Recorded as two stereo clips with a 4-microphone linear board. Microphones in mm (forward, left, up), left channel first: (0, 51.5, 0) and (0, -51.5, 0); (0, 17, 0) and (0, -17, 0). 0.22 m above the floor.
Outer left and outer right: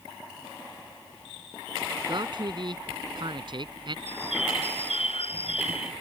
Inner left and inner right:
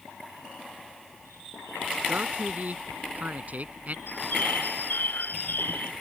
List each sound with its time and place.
2.1 s a man speaking: 50° right (ahead or behind)
4.1 s a bird: 70° left (ahead or behind)